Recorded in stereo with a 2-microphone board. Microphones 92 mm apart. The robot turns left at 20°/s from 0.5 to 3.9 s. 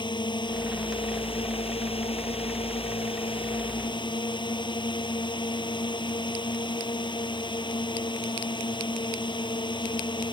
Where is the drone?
125° left; by 10.3 s 55° left.